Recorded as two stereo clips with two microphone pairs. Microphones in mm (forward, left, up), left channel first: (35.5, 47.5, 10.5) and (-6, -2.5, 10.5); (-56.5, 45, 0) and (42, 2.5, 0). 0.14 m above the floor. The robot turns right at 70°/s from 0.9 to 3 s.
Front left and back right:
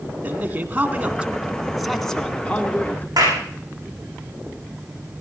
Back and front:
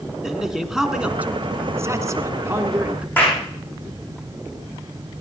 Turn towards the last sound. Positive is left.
turn(degrees=-130)